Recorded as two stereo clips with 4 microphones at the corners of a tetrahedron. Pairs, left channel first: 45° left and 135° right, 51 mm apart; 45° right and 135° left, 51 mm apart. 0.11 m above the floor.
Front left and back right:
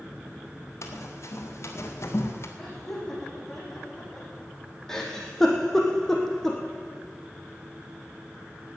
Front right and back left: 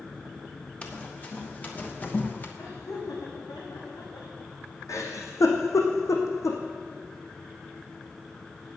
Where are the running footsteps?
20° left, 3.5 m; by 2.5 s 5° left, 2.5 m.